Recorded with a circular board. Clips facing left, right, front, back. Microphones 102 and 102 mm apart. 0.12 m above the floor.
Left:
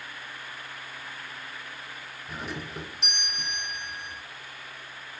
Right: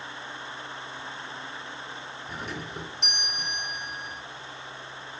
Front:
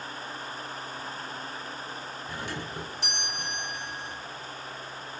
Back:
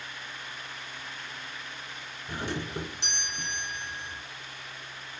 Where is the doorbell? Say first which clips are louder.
Left 1 dB, back 4 dB; straight behind, 1.5 m.